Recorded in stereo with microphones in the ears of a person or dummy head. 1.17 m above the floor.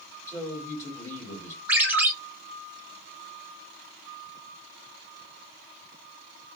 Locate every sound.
0.3 s a man speaking: 20° left (ahead or behind), 3 m
1.7 s a ringtone: 10° right (ahead or behind), 1.4 m